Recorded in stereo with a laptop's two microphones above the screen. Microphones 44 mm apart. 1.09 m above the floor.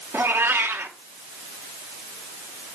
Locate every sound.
0.1 s a cat meowing: 55° right (ahead or behind), 0.8 m